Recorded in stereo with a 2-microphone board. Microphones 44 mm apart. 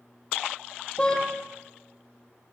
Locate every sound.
1.0 s a car horn: 20° left (ahead or behind), 5 m